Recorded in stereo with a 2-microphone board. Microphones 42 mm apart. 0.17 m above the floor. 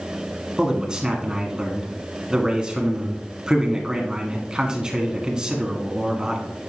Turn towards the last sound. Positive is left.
turn(degrees=-20)  # may be behind; listen again after turning